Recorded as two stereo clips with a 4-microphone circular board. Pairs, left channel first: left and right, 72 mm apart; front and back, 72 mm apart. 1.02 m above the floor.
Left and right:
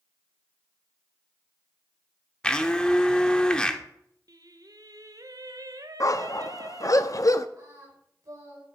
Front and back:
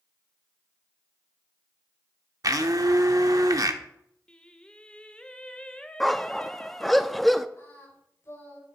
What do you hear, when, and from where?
2.4 s a blender: 165° left, 0.8 m
4.3 s singing: 75° right, 0.7 m
6.0 s a dog barking: 90° left, 0.5 m
7.6 s singing: 50° right, 4.5 m